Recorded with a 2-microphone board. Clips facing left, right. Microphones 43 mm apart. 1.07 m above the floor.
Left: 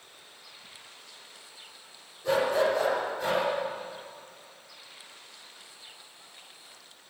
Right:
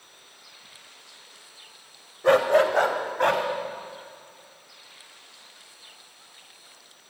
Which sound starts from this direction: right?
A dog barking, at 2.2 s.